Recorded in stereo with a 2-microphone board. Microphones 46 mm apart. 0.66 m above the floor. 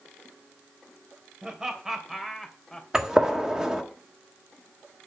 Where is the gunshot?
15° right (ahead or behind), 1.3 m.